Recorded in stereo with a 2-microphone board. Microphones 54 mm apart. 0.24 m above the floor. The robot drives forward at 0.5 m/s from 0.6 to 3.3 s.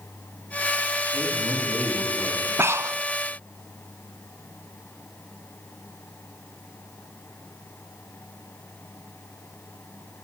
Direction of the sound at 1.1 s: 60° right (ahead or behind).